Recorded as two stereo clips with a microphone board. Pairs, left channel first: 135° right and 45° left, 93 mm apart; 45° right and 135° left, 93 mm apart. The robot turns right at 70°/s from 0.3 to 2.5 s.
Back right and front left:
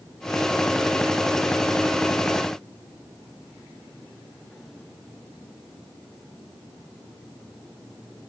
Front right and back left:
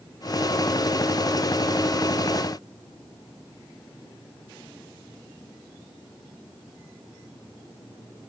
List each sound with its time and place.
Only background noise.